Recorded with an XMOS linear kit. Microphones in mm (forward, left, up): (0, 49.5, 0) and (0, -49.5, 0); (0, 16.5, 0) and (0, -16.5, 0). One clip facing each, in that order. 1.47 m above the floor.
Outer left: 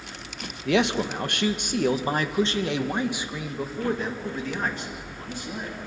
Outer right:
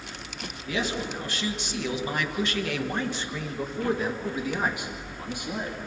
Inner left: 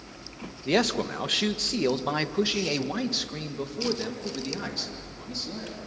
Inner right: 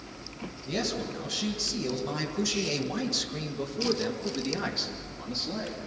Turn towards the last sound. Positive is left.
turn(degrees=-20)  # may be behind; listen again after turning